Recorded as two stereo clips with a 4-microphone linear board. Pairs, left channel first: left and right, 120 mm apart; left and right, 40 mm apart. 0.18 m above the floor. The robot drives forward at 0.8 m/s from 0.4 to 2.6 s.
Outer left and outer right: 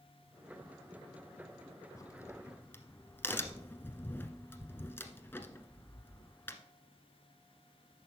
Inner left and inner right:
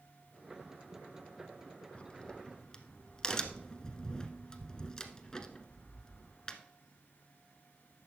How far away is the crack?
About 0.6 m.